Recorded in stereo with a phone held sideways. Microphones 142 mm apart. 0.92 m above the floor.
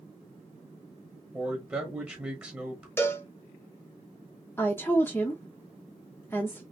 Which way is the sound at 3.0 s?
15° left (ahead or behind).